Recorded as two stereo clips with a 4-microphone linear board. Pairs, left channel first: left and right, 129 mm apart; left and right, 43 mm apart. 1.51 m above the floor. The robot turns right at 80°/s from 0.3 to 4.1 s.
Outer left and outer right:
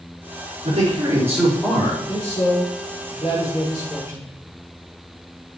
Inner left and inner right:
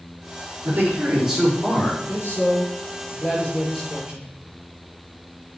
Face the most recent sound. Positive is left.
turn(degrees=-155)